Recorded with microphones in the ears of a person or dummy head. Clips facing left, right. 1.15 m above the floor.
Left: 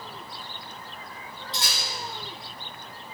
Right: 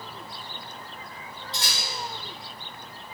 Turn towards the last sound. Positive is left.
turn(degrees=60)  # may be behind; listen again after turning